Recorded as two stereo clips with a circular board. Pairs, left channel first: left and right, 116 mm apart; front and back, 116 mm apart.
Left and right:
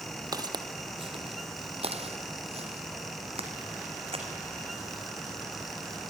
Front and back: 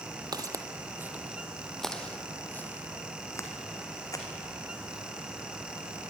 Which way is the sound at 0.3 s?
135° right.